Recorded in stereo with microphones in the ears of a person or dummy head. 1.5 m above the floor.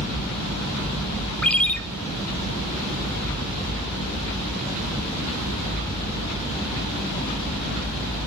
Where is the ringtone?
Centre (ahead or behind), 0.8 m.